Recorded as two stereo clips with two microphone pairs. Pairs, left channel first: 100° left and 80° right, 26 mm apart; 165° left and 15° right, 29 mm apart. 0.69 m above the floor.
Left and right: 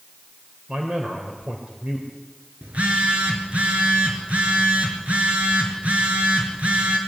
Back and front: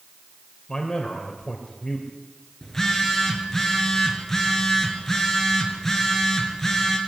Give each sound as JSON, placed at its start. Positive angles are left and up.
{"t": 0.7, "sound": "a man speaking", "azimuth_deg": -125, "distance_m": 3.0}
{"t": 2.6, "sound": "a phone buzzing", "azimuth_deg": -115, "distance_m": 4.0}